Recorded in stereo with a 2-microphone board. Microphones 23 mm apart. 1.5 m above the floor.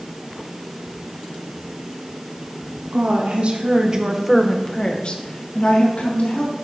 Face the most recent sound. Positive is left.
turn(degrees=70)  # may be behind; listen again after turning